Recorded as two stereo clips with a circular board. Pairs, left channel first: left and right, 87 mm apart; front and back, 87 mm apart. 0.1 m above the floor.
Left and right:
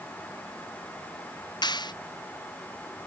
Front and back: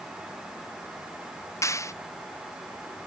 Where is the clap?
55° left.